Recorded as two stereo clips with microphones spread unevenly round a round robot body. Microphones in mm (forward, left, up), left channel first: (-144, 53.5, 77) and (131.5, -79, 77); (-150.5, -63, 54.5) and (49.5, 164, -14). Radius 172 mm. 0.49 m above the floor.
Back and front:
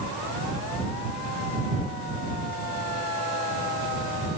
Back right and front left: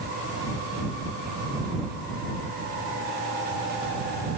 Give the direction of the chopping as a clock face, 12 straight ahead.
No chopping in this recording.